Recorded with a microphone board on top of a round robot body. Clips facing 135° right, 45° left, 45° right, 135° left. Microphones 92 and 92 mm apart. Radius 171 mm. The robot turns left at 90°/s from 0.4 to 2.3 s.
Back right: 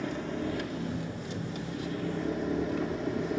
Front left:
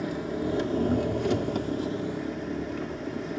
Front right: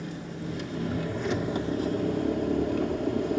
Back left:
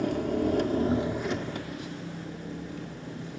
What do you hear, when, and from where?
0.0 s an engine running: 125° left, 1.6 m; by 3.4 s 45° right, 1.6 m